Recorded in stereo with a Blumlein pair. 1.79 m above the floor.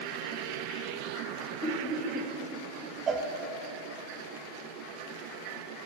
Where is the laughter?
5° left, 1.4 m.